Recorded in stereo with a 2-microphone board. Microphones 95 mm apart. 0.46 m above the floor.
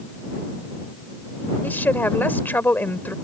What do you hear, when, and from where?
1.6 s a woman speaking: 20° left (ahead or behind)